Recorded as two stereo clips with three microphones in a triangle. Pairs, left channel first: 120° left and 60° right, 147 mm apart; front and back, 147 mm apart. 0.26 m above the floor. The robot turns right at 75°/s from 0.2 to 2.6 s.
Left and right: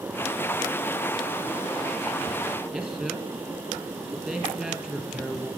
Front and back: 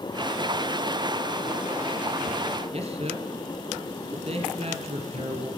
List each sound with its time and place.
2.7 s a man speaking: 140° right, 2.5 m